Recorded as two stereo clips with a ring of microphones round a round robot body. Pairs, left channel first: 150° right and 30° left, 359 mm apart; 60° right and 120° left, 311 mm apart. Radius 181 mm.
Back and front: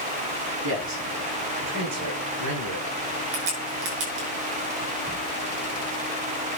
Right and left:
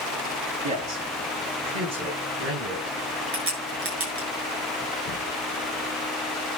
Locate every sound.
0.6 s a man speaking: 90° left, 8 m; by 3.0 s 75° left, 6.5 m
3.3 s a crack: 70° left, 8 m